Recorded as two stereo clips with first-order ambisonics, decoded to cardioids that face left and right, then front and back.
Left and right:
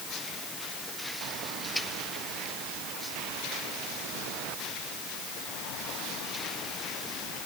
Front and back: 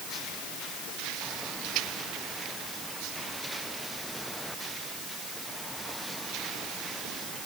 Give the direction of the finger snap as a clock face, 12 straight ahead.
I don't hear a finger snap.